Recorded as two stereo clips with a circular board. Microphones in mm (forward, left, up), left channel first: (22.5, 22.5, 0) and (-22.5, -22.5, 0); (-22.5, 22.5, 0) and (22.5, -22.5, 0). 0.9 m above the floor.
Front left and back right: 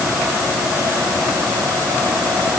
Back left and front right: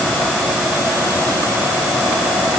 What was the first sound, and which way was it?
Only background noise.